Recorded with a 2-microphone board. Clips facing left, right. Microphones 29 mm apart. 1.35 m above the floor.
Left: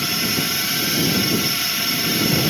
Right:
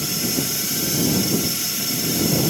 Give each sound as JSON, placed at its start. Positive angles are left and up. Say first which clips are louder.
{"t": 0.0, "sound": "a drone", "louder": "left 3 dB", "side_deg": 35}